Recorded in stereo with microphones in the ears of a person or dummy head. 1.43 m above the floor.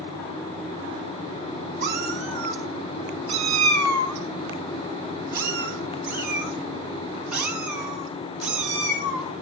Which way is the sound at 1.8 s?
45° right (ahead or behind).